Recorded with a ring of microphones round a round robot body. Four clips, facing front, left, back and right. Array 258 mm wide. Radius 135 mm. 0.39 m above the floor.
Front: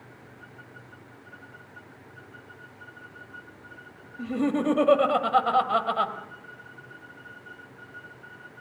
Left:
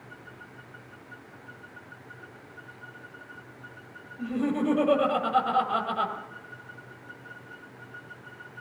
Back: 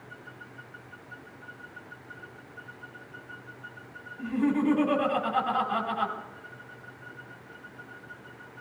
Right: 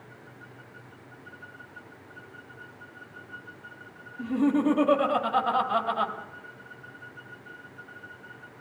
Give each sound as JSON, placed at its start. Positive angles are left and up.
{"t": 4.2, "sound": "laughter", "azimuth_deg": 0, "distance_m": 2.0}